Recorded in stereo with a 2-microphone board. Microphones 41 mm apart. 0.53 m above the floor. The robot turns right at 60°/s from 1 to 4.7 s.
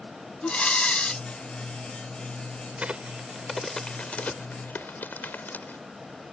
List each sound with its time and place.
0.4 s breathing: 25° left (ahead or behind); by 1.2 s 10° left (ahead or behind)
2.8 s a crack: 35° right (ahead or behind); by 5.8 s 60° left (ahead or behind)